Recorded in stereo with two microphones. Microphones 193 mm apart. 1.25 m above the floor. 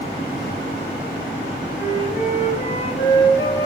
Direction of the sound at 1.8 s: 60° left (ahead or behind).